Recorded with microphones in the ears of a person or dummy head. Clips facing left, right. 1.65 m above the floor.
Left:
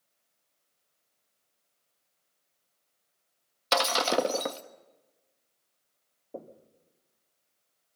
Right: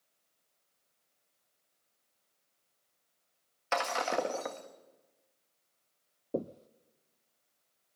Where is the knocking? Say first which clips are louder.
Right 8 dB; 45° right (ahead or behind), 0.6 m.